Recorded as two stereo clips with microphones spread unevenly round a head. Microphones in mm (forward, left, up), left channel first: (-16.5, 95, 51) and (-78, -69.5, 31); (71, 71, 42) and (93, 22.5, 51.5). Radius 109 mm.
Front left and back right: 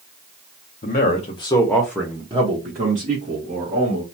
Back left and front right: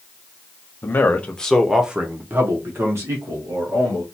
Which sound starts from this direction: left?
A man speaking, at 0.8 s.